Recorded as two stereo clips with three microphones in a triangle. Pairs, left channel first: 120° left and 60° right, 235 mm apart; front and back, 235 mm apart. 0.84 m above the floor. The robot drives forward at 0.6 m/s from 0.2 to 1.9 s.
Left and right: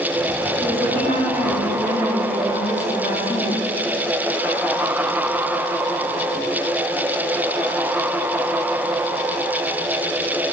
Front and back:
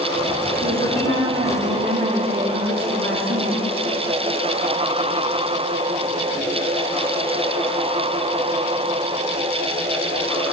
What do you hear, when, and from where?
0.6 s a woman speaking: 160° left, 8 m; by 3.6 s 165° left, 8.5 m